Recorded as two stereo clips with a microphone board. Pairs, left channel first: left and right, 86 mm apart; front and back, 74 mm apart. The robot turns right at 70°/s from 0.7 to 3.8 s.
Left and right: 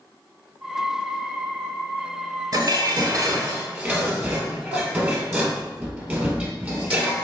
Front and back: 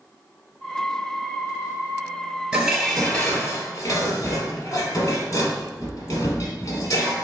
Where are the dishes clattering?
110° right, 1.3 m; by 7.2 s 20° right, 1.3 m.